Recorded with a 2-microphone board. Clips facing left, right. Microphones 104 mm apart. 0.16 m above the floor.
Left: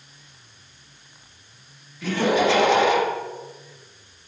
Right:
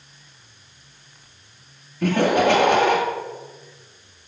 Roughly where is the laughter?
Right.